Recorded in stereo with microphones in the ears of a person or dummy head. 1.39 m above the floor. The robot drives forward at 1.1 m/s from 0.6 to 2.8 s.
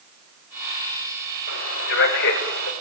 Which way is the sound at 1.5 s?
60° left (ahead or behind).